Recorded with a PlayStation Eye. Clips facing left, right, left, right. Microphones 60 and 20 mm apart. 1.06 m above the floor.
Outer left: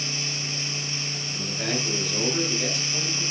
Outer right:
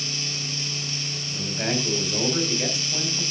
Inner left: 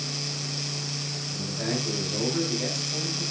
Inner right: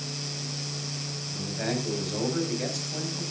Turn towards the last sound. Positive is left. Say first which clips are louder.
# outer right 3 dB, even
turn(degrees=-25)  # may be behind; listen again after turning